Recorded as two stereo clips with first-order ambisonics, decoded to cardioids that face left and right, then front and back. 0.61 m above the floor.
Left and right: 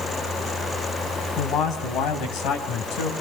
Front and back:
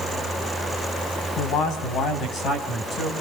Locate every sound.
1.4 s a man speaking: 40° left, 4.5 m; by 3.1 s 70° left, 3.5 m